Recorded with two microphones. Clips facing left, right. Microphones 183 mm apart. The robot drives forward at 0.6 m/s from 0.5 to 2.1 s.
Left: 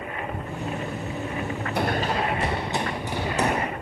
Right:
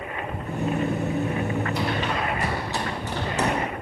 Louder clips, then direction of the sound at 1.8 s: Left 1 dB; 60° left (ahead or behind).